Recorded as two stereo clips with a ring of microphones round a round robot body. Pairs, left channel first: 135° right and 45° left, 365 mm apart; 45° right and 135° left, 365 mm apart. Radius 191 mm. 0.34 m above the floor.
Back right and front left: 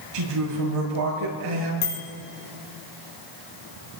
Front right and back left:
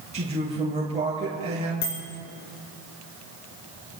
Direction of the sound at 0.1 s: 60° left.